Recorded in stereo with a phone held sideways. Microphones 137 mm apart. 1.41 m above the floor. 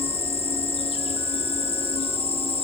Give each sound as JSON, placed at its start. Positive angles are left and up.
{"t": 0.0, "sound": "an insect", "side_deg": 40, "distance_m": 1.1}